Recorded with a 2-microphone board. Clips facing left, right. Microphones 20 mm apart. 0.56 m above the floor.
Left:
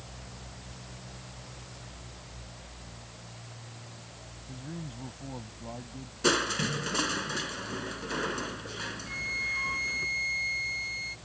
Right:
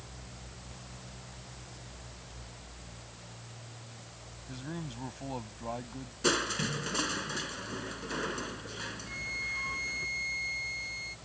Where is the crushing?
10° left (ahead or behind).